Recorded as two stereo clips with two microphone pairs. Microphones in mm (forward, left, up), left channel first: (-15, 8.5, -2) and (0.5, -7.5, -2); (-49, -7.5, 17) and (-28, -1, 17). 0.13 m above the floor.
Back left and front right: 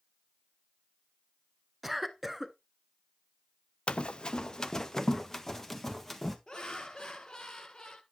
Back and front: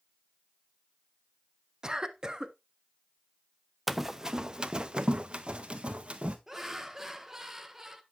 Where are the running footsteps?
105° left, 0.6 m; by 6.4 s 50° left, 2 m.